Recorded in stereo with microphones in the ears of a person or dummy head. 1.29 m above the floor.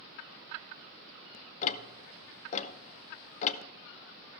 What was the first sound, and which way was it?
Ticking, 40° left (ahead or behind).